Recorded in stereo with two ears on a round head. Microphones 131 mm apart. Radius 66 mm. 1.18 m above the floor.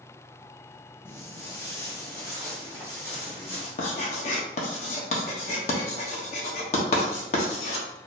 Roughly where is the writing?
Left.